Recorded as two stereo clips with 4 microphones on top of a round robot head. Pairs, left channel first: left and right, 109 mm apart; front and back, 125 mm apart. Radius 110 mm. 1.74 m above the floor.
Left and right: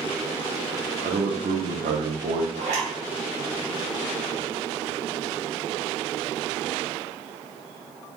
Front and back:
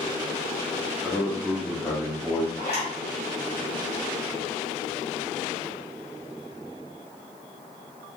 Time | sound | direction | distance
1.0 | a man speaking | 85° right | 0.7 m
2.6 | a zipper | 55° right | 0.8 m